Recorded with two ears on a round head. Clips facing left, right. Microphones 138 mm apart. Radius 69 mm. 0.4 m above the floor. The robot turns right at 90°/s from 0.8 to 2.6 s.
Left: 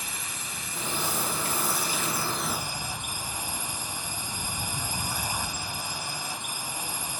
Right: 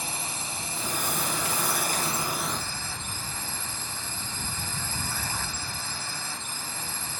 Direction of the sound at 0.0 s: 150° right.